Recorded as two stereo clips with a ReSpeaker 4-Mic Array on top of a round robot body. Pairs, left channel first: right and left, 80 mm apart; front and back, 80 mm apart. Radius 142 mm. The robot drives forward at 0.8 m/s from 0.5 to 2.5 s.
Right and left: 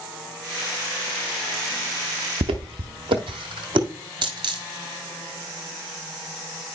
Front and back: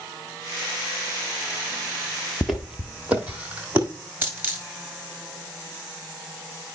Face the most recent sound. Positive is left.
turn(degrees=115)